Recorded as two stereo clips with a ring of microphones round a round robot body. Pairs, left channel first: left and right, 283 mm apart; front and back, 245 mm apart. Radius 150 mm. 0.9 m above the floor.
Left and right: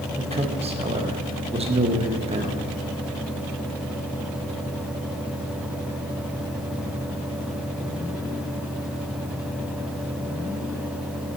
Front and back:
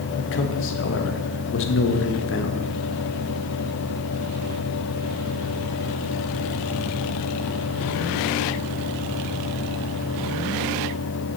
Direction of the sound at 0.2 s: 25° right.